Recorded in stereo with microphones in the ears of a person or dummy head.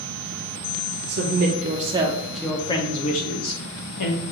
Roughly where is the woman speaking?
Right.